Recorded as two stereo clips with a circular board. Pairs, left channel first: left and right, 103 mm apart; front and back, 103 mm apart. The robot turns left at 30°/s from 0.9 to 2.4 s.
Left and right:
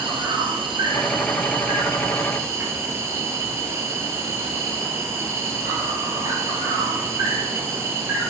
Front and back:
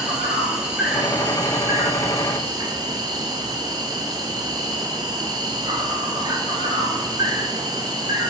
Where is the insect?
100° right, 0.8 m; by 8.3 s 145° right, 0.8 m.